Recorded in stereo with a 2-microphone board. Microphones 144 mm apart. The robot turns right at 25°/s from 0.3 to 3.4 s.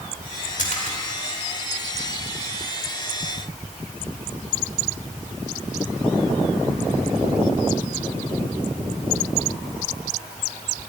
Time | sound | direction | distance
0.6 | a splash | 60° left (ahead or behind) | 2.5 m